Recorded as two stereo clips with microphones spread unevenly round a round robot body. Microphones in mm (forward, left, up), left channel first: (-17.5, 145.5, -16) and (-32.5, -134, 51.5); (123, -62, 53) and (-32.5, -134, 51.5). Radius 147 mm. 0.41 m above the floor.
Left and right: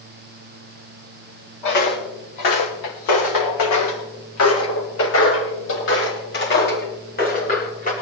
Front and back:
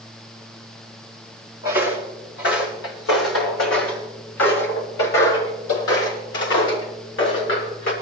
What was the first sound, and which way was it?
Footsteps, 80° left.